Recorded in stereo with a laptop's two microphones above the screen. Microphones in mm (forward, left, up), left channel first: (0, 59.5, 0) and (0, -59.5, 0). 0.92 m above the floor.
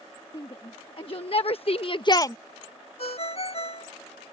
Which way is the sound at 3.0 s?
60° left (ahead or behind).